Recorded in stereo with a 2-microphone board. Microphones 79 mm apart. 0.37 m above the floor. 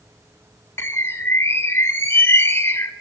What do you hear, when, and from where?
0.8 s a bird: 30° left (ahead or behind), 0.6 m